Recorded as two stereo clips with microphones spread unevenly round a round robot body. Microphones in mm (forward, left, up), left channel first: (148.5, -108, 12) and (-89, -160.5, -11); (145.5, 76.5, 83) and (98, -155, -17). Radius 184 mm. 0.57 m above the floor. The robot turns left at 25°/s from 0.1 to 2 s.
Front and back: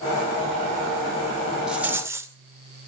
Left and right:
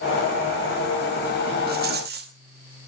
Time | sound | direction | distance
1.7 | a rattle | 85° right | 2 m